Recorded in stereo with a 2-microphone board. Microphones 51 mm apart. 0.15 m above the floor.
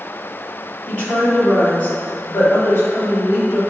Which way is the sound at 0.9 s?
25° left (ahead or behind).